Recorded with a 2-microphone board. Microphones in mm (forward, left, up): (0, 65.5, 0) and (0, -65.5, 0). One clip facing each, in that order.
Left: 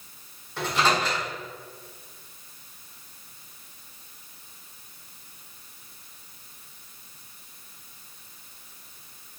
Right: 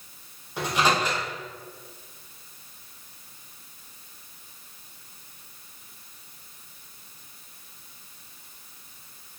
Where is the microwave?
15° right (ahead or behind), 1.4 m.